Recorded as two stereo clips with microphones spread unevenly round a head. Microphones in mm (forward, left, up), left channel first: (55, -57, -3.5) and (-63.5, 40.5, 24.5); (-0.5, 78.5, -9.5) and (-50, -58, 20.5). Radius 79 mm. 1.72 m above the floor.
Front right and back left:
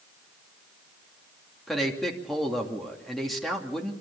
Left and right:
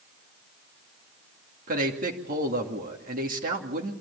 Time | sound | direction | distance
1.7 | a man speaking | 130° right | 2.5 m